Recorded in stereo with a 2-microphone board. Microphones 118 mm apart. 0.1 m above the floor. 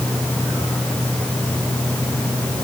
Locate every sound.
Only background noise.